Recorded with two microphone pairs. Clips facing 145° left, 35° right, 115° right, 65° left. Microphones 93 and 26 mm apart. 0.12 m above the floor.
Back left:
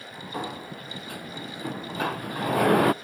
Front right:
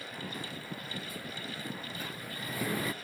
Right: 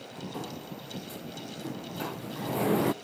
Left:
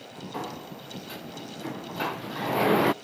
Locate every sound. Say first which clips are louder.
0.3 s a sliding door: back left 8 dB, left 6 dB; 120° left